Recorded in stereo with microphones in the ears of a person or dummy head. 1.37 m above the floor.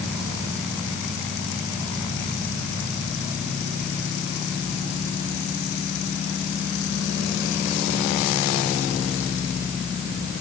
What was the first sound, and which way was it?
Only background noise.